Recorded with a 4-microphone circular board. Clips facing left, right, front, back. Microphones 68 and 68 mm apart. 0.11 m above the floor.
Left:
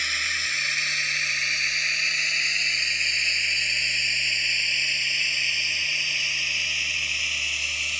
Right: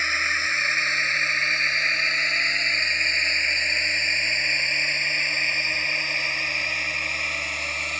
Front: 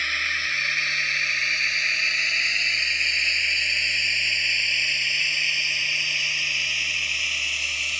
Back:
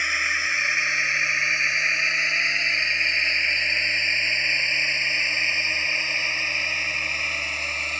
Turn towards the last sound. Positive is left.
turn(degrees=-130)